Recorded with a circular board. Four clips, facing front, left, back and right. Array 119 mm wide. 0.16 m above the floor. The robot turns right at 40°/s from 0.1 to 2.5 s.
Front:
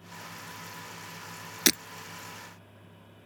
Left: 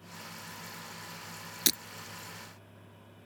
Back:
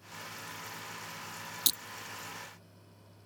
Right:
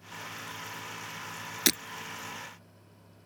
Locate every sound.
1.7 s breaking glass: 20° right; by 1.8 s 15° right